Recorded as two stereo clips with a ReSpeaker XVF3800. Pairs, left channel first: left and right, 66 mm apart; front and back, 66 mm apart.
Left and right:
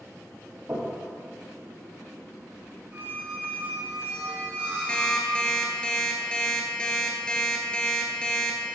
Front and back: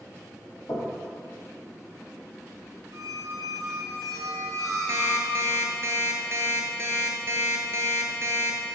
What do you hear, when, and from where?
0.7 s knocking: 35° right, 3 m
2.9 s a squeak: 145° right, 1.7 m
4.9 s an alarm clock: 160° left, 1.1 m